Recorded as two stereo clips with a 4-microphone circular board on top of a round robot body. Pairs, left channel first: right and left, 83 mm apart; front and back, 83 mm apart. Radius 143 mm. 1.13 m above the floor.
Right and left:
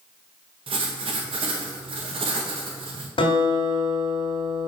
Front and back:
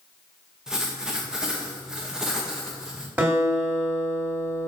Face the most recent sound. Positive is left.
turn(degrees=-105)